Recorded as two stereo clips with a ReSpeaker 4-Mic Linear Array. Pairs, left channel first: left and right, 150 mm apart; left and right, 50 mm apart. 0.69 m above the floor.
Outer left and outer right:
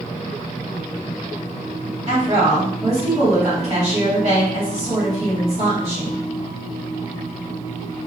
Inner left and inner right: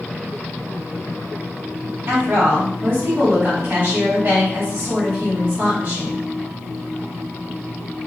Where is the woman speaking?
45° right (ahead or behind), 1.4 m.